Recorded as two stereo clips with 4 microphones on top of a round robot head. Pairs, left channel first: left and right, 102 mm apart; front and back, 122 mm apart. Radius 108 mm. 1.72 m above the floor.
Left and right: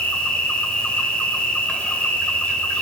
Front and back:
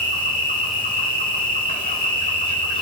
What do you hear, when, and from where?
0.0 s an insect: 15° left, 1.6 m